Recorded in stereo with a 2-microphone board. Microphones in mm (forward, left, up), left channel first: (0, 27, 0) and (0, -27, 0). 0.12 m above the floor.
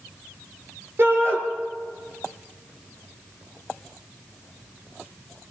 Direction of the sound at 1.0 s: 50° right (ahead or behind).